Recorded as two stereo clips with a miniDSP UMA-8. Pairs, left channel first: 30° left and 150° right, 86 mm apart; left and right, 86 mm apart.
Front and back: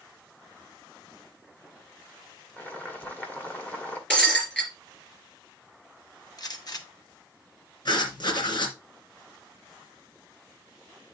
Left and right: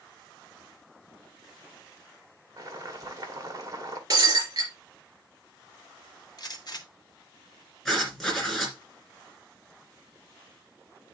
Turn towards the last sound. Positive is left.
turn(degrees=5)